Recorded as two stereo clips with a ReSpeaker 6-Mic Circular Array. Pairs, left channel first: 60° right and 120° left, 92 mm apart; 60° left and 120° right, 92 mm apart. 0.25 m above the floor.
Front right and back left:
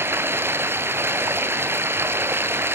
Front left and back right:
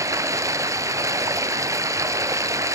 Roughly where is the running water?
Behind.